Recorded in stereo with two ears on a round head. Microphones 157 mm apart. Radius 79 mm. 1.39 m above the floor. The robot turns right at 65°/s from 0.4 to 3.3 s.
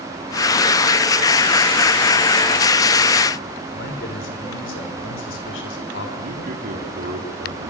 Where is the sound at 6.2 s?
55° right (ahead or behind), 4 m.